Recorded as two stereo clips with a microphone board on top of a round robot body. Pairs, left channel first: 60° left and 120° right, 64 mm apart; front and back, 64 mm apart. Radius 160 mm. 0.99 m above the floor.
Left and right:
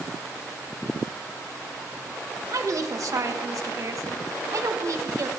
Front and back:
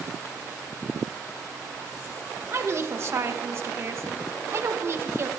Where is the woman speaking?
140° right, 1.5 m.